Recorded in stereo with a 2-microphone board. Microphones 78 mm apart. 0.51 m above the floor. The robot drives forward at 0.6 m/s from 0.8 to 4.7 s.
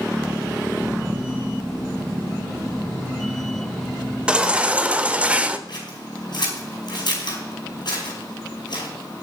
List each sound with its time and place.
4.3 s a baby crying: 15° right (ahead or behind), 1.1 m
5.7 s scissors: 65° left (ahead or behind), 5 m